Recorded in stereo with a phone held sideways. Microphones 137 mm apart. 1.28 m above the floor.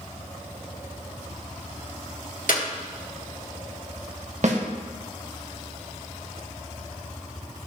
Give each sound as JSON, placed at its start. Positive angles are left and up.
{"t": 2.5, "sound": "a clap", "side_deg": 80, "distance_m": 1.4}
{"t": 4.4, "sound": "a snare drum", "side_deg": -60, "distance_m": 1.5}